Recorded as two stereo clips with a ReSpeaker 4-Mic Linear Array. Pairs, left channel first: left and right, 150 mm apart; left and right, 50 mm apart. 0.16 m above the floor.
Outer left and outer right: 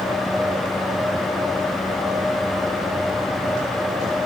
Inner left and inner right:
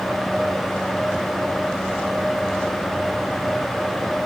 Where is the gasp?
No gasp in this recording.